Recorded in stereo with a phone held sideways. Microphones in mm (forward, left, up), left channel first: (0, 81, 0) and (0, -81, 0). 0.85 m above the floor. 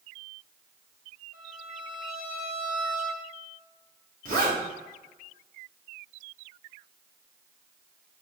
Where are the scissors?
I don't hear scissors.